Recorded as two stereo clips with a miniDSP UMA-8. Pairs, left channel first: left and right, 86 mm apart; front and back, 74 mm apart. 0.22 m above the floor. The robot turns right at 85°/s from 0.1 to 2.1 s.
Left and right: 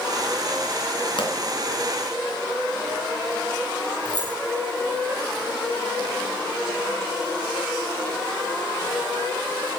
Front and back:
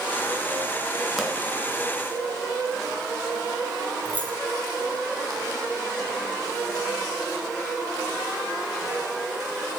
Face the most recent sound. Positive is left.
turn(degrees=-110)